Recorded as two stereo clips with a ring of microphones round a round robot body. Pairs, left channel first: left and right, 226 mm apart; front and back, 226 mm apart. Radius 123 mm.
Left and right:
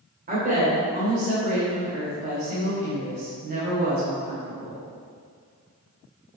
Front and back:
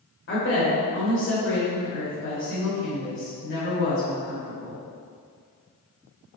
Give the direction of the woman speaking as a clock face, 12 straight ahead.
1 o'clock.